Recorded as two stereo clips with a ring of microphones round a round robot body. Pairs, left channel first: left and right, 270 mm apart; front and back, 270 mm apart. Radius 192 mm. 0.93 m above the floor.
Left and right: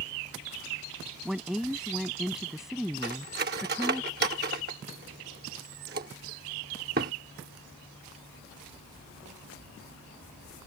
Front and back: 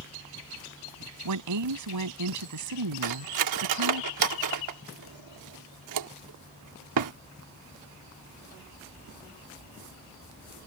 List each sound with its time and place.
1.2 s a woman speaking: straight behind
3.0 s cutlery clinking: 155° right